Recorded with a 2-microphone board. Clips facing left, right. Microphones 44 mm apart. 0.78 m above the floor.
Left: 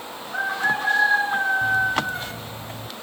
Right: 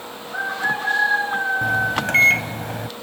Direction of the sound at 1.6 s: 75° right (ahead or behind).